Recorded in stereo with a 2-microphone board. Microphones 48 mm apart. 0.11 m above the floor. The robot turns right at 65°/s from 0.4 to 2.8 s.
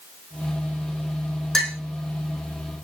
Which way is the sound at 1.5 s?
10° left (ahead or behind).